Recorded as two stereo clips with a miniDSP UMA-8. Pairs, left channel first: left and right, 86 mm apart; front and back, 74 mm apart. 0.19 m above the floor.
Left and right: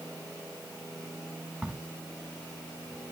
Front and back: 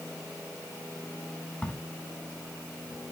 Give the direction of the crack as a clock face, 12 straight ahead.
1 o'clock.